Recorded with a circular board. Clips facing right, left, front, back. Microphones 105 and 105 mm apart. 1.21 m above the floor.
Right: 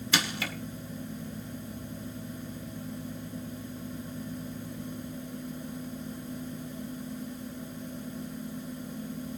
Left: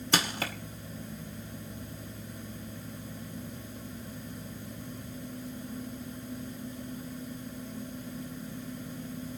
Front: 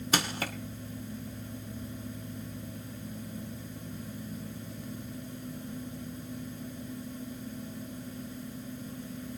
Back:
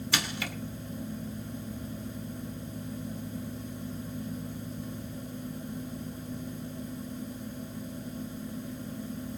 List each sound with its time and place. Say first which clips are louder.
0.1 s crushing: left 1 dB, front 4 dB; 45° left, 1.7 m